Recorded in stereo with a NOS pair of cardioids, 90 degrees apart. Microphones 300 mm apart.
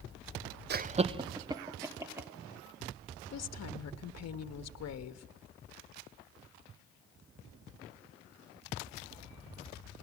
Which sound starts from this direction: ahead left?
A woman speaking, at 3.3 s.